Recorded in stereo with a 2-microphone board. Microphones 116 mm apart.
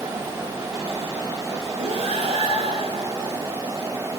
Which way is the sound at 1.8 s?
70° right (ahead or behind).